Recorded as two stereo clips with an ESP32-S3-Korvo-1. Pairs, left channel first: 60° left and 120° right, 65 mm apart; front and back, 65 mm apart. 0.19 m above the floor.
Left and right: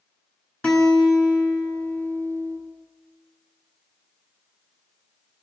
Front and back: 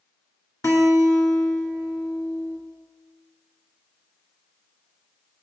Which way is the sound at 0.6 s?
10° right.